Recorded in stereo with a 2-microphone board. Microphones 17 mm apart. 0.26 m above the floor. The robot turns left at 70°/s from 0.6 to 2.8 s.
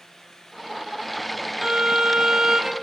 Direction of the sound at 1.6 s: 60° right.